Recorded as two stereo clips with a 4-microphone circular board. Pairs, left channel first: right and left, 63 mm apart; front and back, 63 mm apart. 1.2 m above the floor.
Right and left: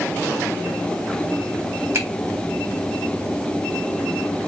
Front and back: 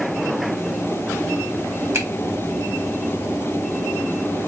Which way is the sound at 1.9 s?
135° left.